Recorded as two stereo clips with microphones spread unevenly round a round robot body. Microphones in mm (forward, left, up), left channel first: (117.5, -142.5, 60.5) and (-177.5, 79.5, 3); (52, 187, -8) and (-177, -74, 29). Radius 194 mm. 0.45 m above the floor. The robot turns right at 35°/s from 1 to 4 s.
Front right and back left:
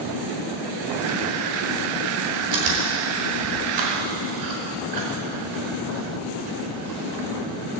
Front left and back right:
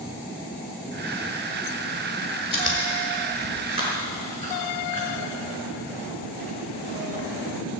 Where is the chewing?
110° left, 4.5 m; by 7.2 s 165° left, 4.5 m.